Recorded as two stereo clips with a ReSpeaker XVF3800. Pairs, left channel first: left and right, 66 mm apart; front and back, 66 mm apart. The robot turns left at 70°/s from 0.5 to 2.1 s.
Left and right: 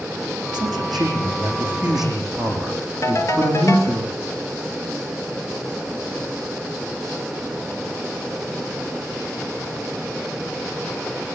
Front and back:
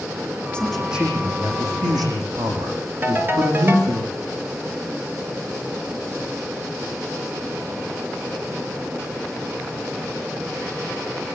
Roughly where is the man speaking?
Right.